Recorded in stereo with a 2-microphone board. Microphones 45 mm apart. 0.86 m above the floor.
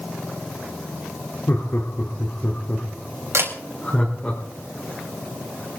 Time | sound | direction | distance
1.5 | laughter | 50° left (ahead or behind) | 2.5 m
3.3 | a camera shutter | 70° right (ahead or behind) | 4 m